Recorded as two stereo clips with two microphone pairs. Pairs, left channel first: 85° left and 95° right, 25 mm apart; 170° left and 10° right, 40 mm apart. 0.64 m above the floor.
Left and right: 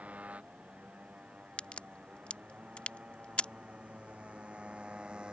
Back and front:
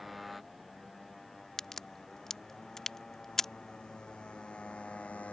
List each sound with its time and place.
0.0 s a motorcycle: 100° right; by 5.3 s 140° right
1.6 s a crack: 95° left